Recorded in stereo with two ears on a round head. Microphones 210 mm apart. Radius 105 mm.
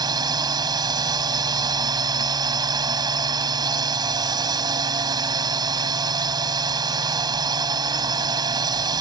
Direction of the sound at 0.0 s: 20° right (ahead or behind).